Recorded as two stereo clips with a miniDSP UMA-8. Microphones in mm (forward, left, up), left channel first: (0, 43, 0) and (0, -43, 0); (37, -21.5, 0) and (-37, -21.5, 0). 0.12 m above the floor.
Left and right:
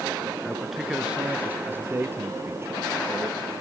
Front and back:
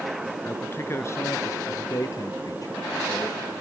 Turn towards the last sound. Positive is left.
turn(degrees=-40)